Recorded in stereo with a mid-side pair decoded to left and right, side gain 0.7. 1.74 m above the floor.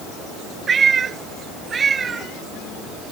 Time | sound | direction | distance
0.7 | a cat meowing | 30° right | ?